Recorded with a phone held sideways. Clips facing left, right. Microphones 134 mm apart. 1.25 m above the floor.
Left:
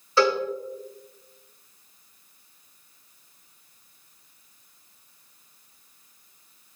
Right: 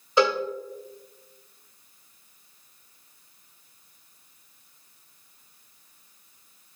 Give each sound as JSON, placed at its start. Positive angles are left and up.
{"t": 0.2, "sound": "a cowbell", "side_deg": -20, "distance_m": 0.9}